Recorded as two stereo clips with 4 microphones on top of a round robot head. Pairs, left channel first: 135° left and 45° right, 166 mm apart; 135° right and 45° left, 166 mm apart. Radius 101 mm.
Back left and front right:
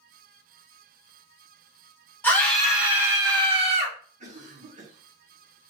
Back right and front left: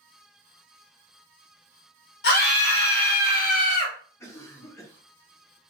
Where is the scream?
145° right, 1.6 m; by 4.0 s 90° right, 1.6 m.